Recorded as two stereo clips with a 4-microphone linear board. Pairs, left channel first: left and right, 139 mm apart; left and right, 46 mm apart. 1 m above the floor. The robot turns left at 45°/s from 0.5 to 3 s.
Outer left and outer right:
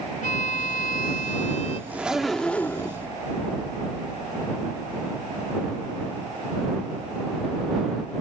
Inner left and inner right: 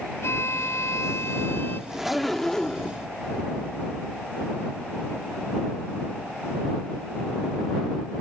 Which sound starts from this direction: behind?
A zipper, at 1.9 s.